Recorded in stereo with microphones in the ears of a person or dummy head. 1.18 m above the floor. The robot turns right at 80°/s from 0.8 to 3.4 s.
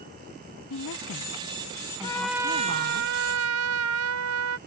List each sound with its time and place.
0.7 s a woman speaking: 90° left; by 3.0 s 90° right
2.0 s a trumpet: 160° left; by 4.6 s 90° right